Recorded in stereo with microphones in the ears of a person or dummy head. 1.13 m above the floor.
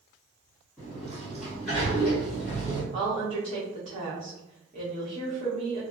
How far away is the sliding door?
About 1.4 m.